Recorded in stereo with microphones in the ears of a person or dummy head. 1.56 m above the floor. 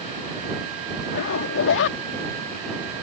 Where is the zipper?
65° left (ahead or behind).